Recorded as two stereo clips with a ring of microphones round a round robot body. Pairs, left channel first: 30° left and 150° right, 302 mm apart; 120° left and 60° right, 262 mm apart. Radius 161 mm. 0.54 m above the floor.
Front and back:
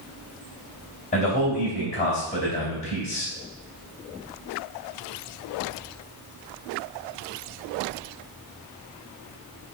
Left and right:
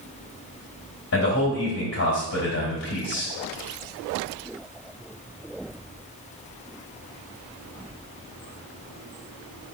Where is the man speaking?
95° left, 3.5 m.